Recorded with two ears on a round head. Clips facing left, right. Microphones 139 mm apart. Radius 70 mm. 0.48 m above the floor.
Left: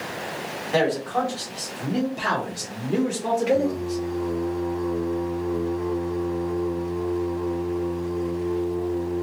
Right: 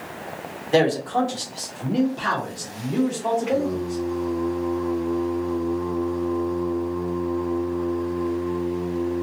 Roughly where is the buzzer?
No buzzer in this recording.